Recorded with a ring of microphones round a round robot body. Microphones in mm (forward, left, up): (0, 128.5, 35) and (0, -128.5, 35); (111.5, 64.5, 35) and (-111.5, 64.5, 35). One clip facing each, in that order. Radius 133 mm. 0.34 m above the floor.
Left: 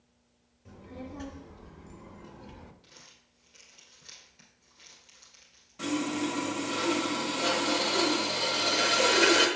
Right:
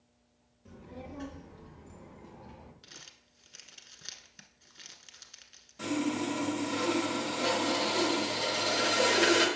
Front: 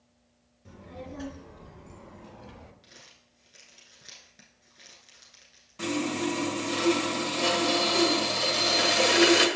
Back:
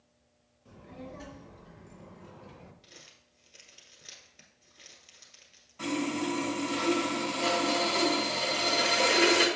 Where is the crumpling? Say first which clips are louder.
Right 1 dB, even; 85° right, 1.0 m.